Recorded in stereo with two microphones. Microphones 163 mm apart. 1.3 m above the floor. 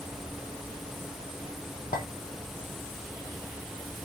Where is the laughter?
I don't hear laughter.